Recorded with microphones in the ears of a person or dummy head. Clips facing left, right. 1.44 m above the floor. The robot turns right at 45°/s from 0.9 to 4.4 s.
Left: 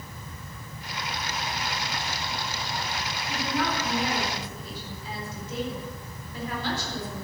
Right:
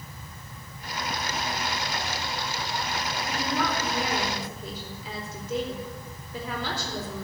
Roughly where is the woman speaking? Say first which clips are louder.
Left 1 dB; behind right.